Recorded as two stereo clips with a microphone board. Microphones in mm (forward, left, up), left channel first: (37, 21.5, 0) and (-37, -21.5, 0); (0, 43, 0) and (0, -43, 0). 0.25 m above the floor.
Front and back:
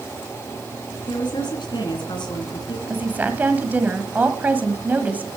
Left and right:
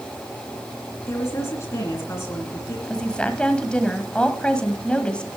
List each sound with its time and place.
1.1 s a woman speaking: 35° left, 2.5 m
2.9 s a woman speaking: 160° left, 1.3 m